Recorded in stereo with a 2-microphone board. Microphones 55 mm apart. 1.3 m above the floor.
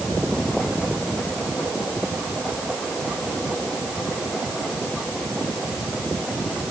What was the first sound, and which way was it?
Only background noise.